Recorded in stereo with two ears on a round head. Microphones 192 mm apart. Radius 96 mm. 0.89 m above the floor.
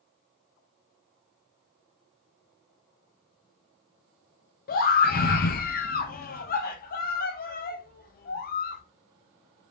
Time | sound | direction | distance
4.7 | a scream | 45° left (ahead or behind) | 0.7 m